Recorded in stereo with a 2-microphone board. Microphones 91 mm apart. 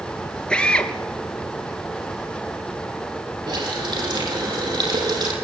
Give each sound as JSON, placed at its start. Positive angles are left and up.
{"t": 0.5, "sound": "a drill", "side_deg": 10, "distance_m": 3.0}
{"t": 3.5, "sound": "a running tap", "side_deg": -55, "distance_m": 8.0}